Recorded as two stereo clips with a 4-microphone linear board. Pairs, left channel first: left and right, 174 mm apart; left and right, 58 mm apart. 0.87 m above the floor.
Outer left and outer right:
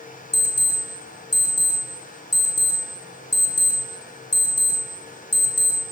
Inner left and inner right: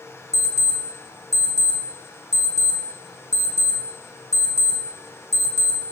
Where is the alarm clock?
75° left (ahead or behind), 0.6 m.